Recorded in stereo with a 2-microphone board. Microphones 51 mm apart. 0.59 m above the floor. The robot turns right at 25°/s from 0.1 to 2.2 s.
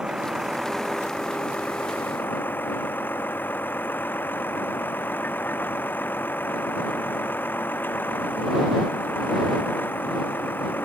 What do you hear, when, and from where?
0.0 s a vehicle: 15° right; by 10.9 s 40° left